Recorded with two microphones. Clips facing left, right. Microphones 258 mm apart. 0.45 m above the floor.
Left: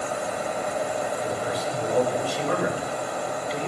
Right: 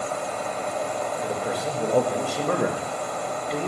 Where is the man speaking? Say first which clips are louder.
Right 1 dB; 50° right (ahead or behind), 1.5 m.